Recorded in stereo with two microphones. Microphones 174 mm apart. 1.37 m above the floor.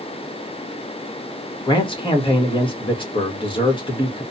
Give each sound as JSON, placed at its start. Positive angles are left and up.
{"t": 1.7, "sound": "a man speaking", "side_deg": 30, "distance_m": 1.2}